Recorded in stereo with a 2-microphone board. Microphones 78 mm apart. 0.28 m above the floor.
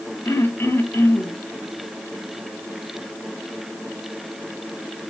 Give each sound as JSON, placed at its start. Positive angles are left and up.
{"t": 0.2, "sound": "throat clearing", "side_deg": 30, "distance_m": 1.8}